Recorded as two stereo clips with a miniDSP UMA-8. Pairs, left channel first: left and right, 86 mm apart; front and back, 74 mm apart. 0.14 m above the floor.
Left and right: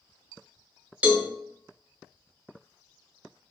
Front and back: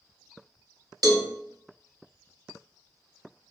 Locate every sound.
1.0 s a cowbell: 160° right, 0.5 m